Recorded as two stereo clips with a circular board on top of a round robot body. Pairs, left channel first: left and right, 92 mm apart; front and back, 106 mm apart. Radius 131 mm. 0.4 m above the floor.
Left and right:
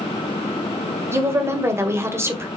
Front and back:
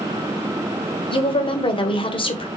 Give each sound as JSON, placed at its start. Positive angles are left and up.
{"t": 1.1, "sound": "a woman speaking", "azimuth_deg": -30, "distance_m": 1.8}